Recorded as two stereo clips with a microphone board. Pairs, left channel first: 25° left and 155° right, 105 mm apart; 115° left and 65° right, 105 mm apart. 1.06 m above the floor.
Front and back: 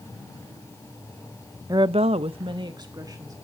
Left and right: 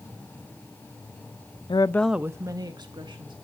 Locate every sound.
1.7 s a woman speaking: 150° left, 0.6 m; by 3.4 s 105° right, 1.9 m